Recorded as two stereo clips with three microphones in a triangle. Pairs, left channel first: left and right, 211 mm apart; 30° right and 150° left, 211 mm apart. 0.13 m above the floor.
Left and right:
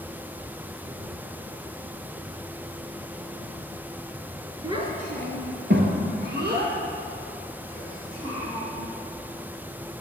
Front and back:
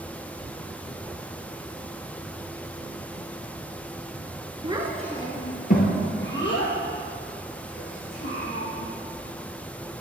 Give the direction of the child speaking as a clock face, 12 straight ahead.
5 o'clock.